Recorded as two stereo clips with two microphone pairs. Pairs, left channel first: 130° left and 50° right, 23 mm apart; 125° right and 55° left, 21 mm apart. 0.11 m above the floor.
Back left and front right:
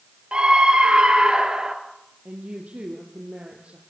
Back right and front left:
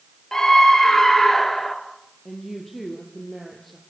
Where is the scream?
75° right, 2.5 m; by 1.8 s 60° right, 2.5 m.